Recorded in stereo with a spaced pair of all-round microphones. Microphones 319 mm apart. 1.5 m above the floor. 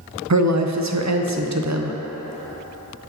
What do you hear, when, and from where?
0.3 s a woman speaking: 55° right (ahead or behind), 0.5 m